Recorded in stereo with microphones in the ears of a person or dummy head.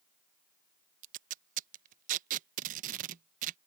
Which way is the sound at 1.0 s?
45° right (ahead or behind).